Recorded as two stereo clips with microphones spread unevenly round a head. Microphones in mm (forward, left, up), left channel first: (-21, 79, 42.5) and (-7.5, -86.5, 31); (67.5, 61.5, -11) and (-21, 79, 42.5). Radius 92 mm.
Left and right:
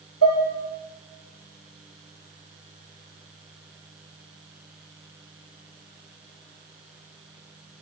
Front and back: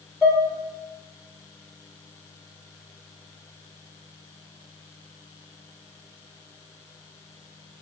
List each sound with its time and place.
0.2 s dishes clattering: 75° left, 2.5 m